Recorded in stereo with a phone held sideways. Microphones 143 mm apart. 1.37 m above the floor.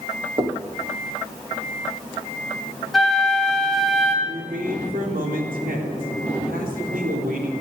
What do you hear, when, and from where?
0.4 s knocking: 40° right (ahead or behind), 1.7 m
2.9 s a flute: centre (ahead or behind), 2.5 m
4.2 s a man speaking: 90° right, 3.5 m